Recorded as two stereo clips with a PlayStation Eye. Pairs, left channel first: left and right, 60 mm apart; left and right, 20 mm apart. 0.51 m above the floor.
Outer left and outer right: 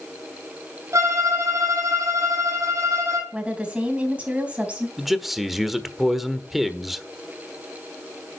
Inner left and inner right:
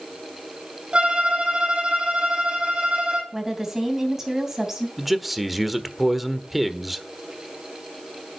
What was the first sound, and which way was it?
A violin, 55° right (ahead or behind).